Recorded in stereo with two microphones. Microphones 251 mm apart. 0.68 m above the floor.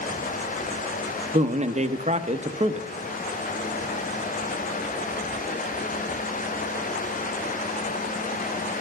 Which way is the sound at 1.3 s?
30° right (ahead or behind).